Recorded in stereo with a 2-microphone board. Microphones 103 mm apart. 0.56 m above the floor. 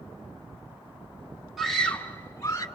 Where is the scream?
Centre (ahead or behind), 1.4 m; by 2.6 s 30° left (ahead or behind), 1.8 m.